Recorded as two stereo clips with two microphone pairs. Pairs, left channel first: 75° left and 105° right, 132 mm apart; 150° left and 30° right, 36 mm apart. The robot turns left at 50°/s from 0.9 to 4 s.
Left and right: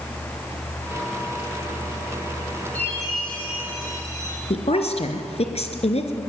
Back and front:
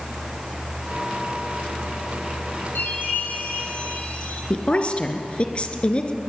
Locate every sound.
2.8 s a chime: 155° left, 7.5 m; by 4.4 s 90° left, 7.5 m
4.5 s a woman speaking: 100° left, 2.5 m